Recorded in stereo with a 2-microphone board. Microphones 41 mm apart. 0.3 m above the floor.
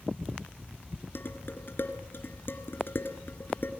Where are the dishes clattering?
60° left (ahead or behind), 3 m.